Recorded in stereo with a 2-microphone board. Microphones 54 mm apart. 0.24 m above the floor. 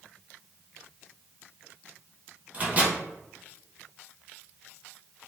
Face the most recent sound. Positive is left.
turn(degrees=-25)  # may be behind; listen again after turning